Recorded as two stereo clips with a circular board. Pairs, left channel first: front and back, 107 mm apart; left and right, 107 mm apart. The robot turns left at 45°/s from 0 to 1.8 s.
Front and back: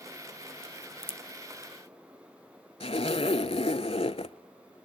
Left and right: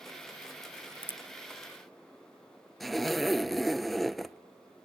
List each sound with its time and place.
0.6 s a crack: straight ahead, 0.6 m; by 1.7 s 45° right, 0.6 m
2.8 s a zipper: straight ahead, 0.6 m